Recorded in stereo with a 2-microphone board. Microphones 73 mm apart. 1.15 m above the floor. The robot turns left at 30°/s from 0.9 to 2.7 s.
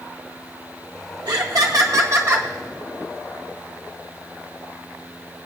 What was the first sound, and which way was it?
Laughter, 110° right.